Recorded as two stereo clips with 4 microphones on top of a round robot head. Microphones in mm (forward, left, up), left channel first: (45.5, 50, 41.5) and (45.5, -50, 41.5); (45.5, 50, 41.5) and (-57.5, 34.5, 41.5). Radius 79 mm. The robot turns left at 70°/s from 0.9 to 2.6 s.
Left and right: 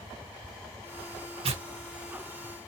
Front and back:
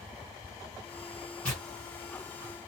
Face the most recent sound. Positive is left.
turn(degrees=-150)